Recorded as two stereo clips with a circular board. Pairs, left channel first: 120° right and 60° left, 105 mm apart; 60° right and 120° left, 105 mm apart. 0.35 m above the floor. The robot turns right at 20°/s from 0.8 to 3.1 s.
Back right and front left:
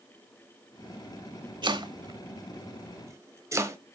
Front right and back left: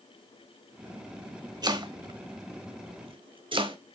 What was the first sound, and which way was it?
Chopping, 85° left.